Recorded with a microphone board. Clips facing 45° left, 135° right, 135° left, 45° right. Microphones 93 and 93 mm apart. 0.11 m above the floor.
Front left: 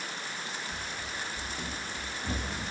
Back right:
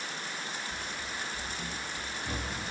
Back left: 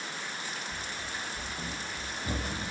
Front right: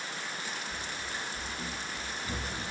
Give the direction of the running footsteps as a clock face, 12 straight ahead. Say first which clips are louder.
Even, even; 10 o'clock.